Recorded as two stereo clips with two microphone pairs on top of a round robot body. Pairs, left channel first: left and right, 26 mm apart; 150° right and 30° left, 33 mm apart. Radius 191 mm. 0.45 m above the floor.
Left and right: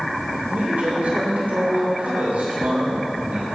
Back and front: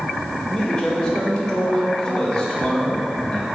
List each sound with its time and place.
0.5 s a man speaking: 80° right, 3.5 m